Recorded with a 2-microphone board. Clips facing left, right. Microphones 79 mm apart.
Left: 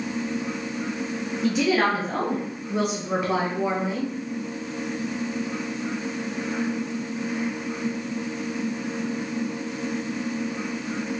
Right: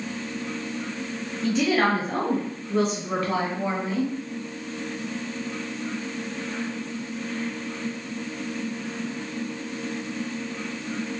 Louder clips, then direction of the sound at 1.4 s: Even; 5° left (ahead or behind).